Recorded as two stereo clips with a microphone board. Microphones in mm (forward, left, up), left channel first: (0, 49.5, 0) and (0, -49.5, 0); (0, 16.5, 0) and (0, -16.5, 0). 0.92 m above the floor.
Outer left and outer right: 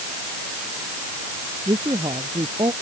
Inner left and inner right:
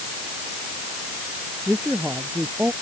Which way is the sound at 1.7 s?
55° right (ahead or behind).